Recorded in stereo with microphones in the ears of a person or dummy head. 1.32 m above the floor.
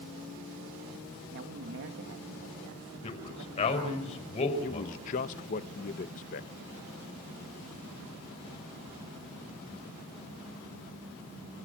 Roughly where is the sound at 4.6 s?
Left.